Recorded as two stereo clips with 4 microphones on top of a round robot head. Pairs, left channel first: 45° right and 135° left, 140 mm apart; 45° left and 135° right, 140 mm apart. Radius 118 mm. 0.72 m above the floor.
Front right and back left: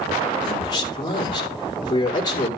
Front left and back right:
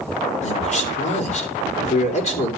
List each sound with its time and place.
0.4 s a man speaking: 15° left, 3 m